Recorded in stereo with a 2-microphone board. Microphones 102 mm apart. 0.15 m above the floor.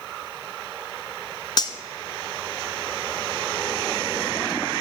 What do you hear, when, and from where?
1.6 s cutlery clinking: 45° left (ahead or behind), 0.8 m